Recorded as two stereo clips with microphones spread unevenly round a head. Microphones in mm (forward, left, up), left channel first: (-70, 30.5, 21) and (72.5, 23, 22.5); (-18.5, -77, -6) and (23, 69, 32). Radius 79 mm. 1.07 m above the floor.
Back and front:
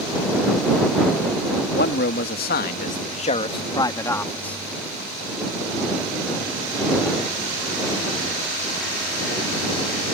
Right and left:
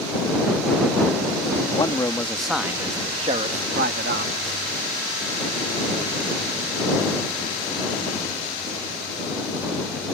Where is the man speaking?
170° right; by 4.6 s 95° left.